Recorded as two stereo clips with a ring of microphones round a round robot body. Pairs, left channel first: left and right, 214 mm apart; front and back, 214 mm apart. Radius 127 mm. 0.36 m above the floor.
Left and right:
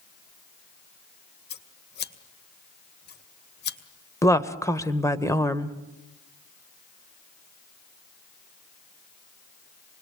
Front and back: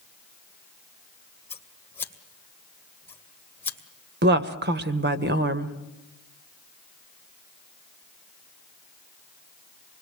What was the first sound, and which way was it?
Scissors, 80° left.